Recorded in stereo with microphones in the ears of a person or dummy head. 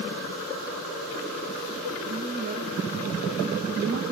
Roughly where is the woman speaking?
Right.